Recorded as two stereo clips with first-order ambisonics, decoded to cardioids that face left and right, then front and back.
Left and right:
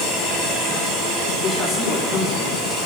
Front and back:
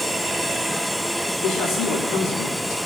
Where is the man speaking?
30° left, 4.5 m.